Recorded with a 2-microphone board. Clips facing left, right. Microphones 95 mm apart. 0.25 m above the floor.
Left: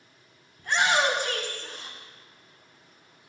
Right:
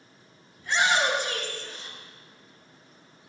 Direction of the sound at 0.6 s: 50° left (ahead or behind).